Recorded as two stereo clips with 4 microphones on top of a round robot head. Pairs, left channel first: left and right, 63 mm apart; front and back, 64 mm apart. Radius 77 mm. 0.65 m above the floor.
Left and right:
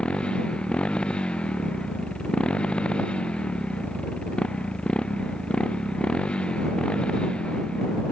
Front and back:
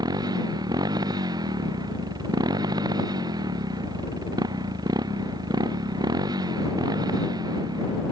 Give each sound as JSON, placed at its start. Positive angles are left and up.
{"t": 0.0, "sound": "a motorcycle", "azimuth_deg": 165}